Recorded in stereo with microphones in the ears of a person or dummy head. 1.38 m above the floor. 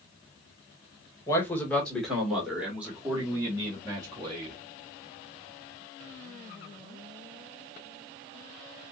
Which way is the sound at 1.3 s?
15° left (ahead or behind).